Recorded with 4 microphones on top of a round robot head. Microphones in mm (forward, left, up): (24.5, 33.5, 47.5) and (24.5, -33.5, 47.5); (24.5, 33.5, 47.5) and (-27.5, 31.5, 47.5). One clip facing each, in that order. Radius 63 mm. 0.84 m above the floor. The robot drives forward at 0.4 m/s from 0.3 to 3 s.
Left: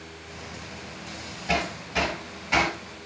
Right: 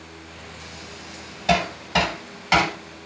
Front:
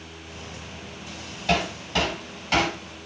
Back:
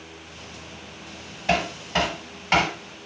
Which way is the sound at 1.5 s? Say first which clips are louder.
Right 6 dB, back 1 dB; 100° right.